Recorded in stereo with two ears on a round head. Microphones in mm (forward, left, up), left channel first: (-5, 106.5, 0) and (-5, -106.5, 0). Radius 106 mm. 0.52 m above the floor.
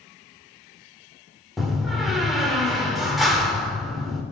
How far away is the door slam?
About 0.9 m.